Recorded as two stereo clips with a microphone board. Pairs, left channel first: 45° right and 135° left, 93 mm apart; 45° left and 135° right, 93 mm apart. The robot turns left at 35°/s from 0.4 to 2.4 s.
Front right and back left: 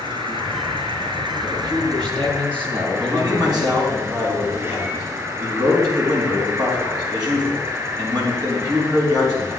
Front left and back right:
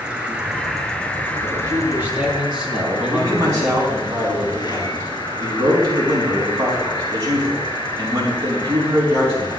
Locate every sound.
0.0 s an insect: 150° left, 2.5 m; by 9.6 s 80° left, 2.5 m
1.4 s a man speaking: straight behind, 4 m; by 4.0 s 145° left, 4 m
3.0 s a man speaking: 175° left, 5.5 m